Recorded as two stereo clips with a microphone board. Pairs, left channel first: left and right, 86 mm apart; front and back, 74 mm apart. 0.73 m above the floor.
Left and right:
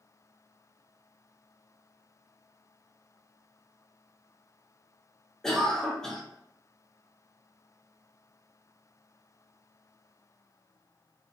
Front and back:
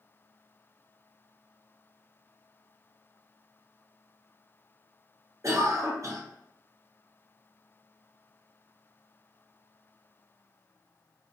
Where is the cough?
170° left, 0.7 m.